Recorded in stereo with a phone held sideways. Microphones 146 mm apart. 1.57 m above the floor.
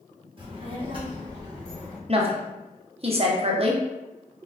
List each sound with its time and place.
0.4 s a child speaking: 35° right (ahead or behind), 1.1 m; by 2.0 s 10° right (ahead or behind), 1.2 m
2.1 s a woman speaking: 40° right (ahead or behind), 0.6 m